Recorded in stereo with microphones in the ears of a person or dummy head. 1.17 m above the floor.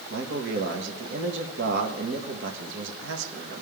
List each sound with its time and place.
0.1 s a man speaking: 60° right (ahead or behind), 1.5 m